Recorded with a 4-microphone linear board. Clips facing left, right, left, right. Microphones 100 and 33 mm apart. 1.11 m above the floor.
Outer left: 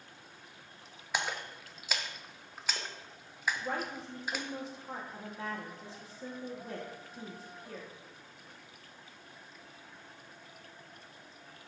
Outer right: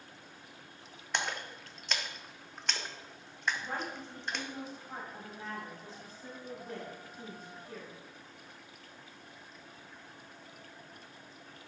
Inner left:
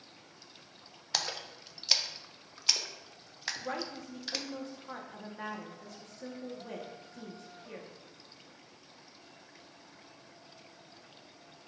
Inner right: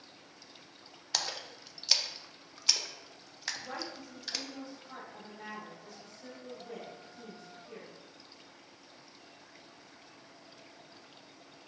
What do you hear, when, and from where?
1.1 s a splash: 5° left (ahead or behind), 0.5 m
3.6 s a woman speaking: 90° left, 1.5 m